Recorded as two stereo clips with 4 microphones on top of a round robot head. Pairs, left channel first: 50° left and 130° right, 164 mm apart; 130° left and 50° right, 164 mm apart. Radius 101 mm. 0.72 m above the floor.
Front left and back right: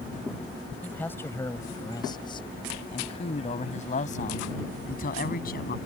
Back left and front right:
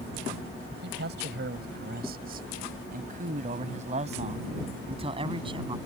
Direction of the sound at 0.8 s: 35° right.